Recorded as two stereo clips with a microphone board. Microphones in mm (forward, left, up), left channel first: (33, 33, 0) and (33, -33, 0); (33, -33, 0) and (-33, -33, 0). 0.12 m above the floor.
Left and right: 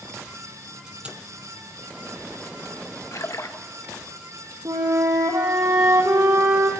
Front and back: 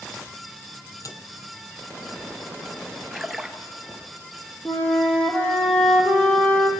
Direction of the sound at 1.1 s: 20° right.